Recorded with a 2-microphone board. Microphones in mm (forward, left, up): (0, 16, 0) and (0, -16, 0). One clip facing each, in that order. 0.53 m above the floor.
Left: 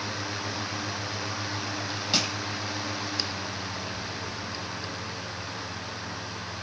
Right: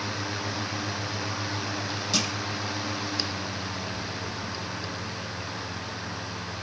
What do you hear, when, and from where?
2.1 s crushing: 25° left (ahead or behind), 2 m